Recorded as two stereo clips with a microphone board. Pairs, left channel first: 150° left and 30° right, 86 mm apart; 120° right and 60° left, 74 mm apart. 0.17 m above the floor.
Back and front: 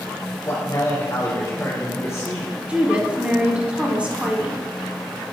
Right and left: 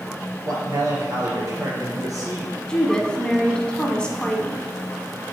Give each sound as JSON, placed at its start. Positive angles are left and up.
{"t": 0.5, "sound": "a man speaking", "azimuth_deg": 100, "distance_m": 2.5}
{"t": 2.7, "sound": "a woman speaking", "azimuth_deg": -70, "distance_m": 1.0}